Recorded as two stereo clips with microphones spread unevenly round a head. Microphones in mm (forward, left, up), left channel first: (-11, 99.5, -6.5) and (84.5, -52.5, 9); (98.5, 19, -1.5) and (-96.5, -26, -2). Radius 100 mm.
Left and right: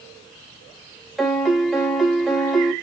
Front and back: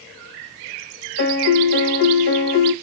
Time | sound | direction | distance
1.2 | a piano | 30° left | 1.0 m